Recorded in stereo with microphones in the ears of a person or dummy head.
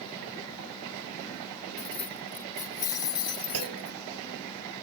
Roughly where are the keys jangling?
Centre.